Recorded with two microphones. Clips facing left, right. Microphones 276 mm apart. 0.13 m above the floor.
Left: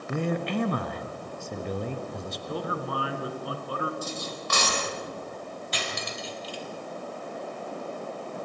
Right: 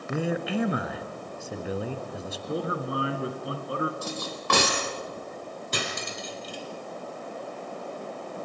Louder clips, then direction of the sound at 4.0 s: Right 1 dB; 65° right (ahead or behind).